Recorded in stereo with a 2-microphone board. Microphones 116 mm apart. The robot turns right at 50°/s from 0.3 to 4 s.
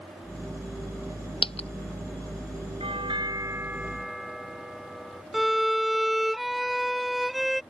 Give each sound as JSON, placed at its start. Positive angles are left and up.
{"t": 1.4, "sound": "a dropped coin", "side_deg": 55}
{"t": 2.8, "sound": "a doorbell", "azimuth_deg": -60}
{"t": 5.3, "sound": "a violin", "side_deg": 0}